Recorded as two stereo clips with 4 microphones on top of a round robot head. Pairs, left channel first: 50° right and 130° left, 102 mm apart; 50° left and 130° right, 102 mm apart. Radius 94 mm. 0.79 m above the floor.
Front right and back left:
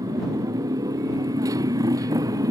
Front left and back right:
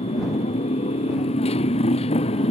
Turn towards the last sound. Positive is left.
turn(degrees=75)